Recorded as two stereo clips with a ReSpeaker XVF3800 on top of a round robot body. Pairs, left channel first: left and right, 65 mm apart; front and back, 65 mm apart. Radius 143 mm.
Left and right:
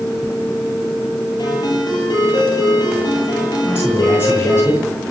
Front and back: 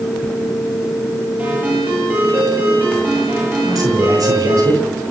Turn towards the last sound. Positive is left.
turn(degrees=145)